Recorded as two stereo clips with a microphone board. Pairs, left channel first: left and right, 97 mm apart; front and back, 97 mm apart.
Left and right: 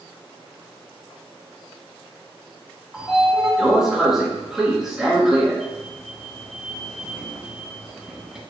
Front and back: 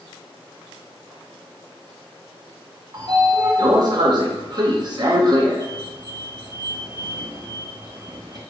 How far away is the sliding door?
About 0.6 m.